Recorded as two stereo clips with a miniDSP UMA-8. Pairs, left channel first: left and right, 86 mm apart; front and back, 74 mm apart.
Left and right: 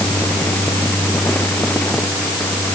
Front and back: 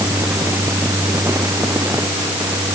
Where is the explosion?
I don't hear an explosion.